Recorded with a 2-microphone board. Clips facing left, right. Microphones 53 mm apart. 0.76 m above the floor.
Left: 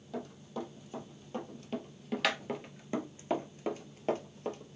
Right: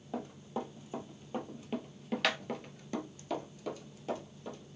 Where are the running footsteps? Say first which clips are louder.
Right 1 dB; 30° right (ahead or behind), 1.7 m; by 4.8 s 55° left (ahead or behind), 1.2 m.